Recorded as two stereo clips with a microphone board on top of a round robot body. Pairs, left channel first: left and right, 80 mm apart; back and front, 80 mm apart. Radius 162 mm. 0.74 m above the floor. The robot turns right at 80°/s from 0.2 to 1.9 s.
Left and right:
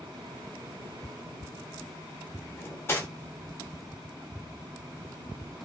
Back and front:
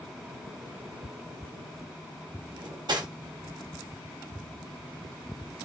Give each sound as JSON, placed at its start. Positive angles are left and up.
{"t": 2.6, "sound": "cutlery clinking", "azimuth_deg": 30, "distance_m": 0.8}